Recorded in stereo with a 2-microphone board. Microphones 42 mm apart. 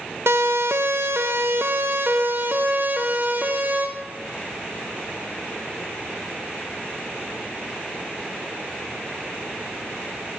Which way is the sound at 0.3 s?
75° right (ahead or behind).